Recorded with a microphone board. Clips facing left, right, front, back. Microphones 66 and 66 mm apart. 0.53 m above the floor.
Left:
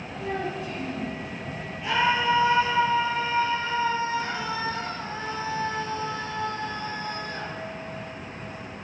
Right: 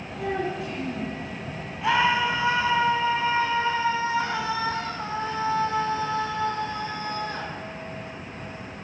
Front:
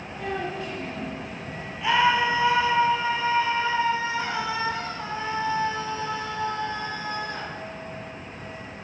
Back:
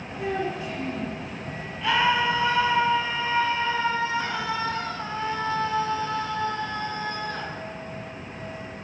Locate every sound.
0.2 s a child speaking: 100° right, 8 m
1.8 s a scream: 75° right, 5 m